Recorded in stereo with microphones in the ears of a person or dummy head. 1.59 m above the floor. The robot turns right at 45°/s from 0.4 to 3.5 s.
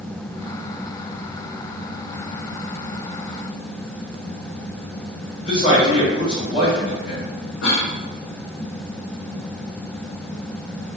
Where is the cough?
75° left (ahead or behind), 0.8 m.